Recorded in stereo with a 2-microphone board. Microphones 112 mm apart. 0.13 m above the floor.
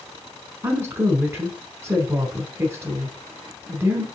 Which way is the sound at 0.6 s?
20° right (ahead or behind).